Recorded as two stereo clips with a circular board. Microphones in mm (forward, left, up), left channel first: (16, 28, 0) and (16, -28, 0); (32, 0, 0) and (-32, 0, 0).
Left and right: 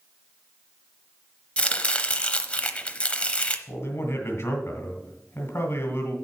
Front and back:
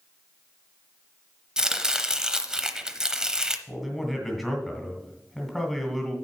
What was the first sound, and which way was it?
Chopping, 115° left.